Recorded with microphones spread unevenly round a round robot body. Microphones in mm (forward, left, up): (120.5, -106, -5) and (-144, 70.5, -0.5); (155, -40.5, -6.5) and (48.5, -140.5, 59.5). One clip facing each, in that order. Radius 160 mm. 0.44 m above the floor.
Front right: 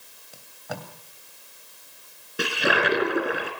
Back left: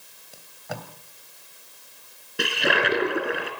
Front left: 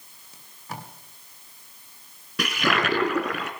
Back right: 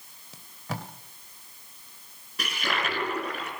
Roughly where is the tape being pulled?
Behind right.